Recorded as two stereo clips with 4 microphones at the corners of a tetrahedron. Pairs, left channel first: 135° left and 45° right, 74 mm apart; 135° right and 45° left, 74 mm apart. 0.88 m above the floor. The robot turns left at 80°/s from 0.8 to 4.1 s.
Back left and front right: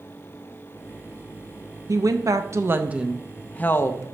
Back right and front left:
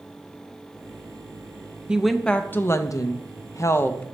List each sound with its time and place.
1.9 s a woman speaking: 30° right, 0.6 m; by 4.0 s 160° left, 0.6 m